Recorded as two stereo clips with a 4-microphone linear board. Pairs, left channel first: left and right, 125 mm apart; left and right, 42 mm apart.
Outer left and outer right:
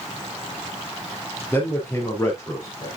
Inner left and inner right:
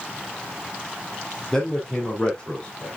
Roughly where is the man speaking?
Centre.